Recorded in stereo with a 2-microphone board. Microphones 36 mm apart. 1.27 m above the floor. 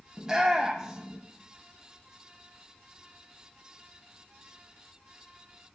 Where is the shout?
15° right (ahead or behind), 0.7 m.